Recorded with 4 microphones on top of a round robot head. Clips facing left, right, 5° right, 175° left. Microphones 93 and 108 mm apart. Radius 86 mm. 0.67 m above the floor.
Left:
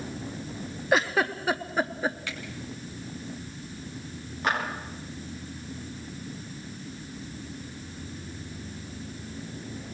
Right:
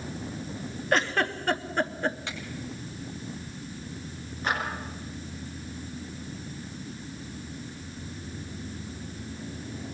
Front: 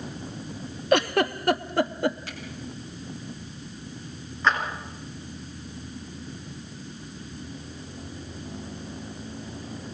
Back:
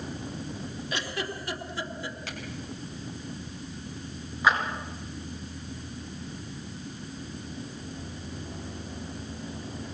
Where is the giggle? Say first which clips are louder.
Left 2 dB, front 14 dB; 5° left, 0.8 m.